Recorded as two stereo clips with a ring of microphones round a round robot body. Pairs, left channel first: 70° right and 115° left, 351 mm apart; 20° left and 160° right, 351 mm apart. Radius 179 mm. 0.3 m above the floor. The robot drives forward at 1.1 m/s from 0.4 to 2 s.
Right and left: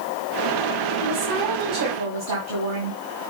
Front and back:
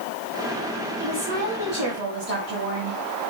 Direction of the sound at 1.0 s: 130° left.